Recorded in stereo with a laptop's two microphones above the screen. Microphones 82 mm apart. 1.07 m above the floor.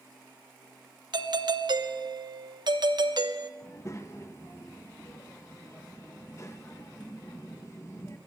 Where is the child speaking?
35° left (ahead or behind), 0.8 m.